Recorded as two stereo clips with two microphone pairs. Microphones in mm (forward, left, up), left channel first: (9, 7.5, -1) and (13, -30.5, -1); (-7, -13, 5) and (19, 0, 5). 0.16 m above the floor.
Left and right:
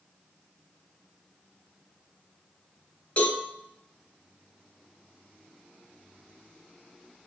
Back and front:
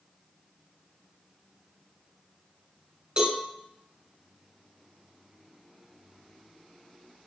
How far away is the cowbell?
About 1.1 m.